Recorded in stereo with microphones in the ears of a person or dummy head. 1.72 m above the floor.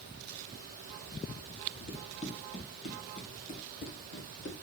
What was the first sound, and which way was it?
Running footsteps, 30° left (ahead or behind).